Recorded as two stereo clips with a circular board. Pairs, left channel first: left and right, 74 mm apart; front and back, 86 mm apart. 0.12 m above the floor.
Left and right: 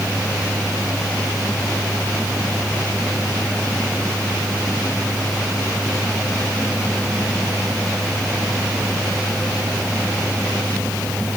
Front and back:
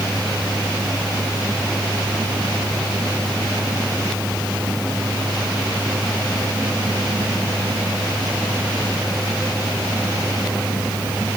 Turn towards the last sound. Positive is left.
No sound to turn to.